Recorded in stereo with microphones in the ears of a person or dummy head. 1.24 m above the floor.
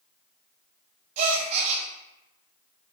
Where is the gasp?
40° right (ahead or behind), 0.5 m.